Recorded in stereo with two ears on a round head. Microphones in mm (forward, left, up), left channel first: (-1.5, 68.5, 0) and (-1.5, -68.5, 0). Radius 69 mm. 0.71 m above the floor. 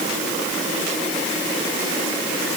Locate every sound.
Only background noise.